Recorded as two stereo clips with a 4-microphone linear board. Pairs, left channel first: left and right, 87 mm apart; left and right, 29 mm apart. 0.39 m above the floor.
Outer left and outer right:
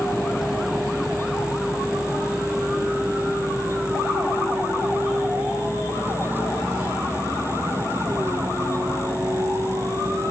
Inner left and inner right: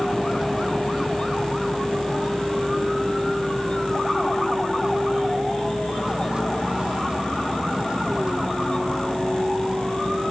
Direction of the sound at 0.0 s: 5° right (ahead or behind).